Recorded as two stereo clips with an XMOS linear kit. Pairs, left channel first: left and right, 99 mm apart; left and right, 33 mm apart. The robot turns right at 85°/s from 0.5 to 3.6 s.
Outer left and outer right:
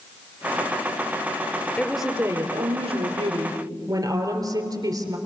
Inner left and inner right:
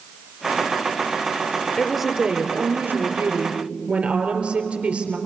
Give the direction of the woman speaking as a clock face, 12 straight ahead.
6 o'clock.